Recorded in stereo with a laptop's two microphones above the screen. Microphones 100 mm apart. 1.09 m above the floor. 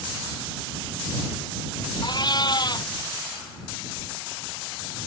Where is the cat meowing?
45° left (ahead or behind).